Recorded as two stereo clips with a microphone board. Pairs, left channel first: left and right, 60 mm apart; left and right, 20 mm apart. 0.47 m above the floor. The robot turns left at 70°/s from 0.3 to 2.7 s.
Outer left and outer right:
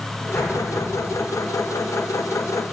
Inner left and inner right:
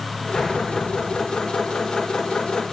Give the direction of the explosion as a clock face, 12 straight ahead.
11 o'clock.